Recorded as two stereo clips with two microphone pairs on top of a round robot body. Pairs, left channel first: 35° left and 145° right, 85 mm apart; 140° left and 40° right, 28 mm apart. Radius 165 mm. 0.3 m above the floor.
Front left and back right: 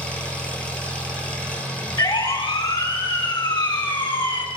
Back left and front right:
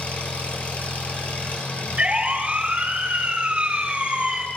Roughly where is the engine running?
Behind left.